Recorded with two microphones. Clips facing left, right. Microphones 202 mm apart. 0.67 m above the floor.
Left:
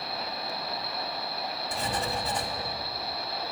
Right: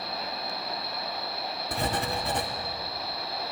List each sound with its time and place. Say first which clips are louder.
1.7 s writing: right 3 dB; 60° right (ahead or behind), 1.0 m